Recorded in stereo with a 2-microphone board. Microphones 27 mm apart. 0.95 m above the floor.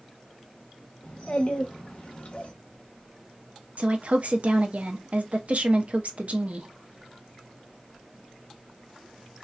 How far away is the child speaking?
About 1.6 m.